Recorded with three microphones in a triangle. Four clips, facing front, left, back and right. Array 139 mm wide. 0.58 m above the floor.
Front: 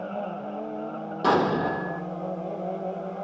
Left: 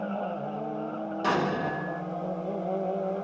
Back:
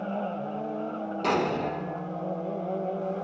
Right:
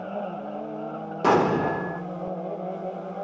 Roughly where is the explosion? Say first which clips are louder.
Right 7 dB, front 5 dB; right.